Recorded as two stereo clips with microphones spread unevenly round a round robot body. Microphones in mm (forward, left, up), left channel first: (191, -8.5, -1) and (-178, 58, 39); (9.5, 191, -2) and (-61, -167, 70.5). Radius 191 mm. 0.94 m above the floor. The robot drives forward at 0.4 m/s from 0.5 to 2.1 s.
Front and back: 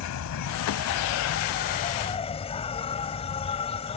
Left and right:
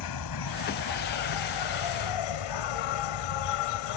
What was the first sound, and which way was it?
An insect, 35° left.